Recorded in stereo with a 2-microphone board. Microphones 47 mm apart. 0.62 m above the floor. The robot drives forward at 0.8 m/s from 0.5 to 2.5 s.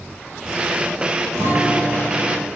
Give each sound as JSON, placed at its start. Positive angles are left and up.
{"t": 1.3, "sound": "a guitar", "side_deg": -70, "distance_m": 0.6}